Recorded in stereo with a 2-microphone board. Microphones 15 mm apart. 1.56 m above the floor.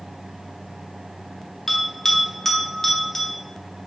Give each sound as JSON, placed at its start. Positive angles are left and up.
{"t": 1.7, "sound": "a bell", "side_deg": 20, "distance_m": 0.7}